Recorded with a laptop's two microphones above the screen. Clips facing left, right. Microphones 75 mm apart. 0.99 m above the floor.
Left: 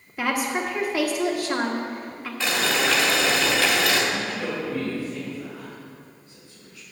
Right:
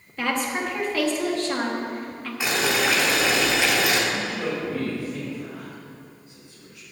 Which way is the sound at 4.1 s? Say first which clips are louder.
Right 1 dB; 20° right (ahead or behind).